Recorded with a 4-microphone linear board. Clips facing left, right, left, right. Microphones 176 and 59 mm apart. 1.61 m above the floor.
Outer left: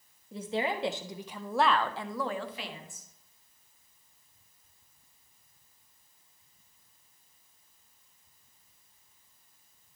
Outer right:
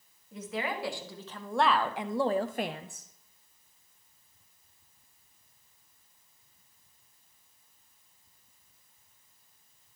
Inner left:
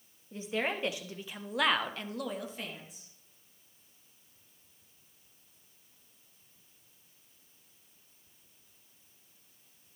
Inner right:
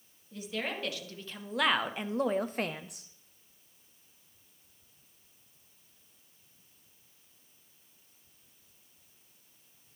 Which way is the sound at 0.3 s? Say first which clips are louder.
Outer left 3 dB, inner left 3 dB; 30° left (ahead or behind).